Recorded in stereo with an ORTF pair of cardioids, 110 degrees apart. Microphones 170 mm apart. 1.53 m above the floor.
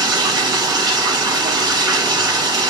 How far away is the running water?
About 1.4 m.